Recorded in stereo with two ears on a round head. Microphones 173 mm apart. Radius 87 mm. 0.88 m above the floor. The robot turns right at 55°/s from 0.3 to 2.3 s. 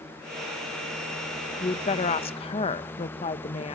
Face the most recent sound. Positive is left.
turn(degrees=110)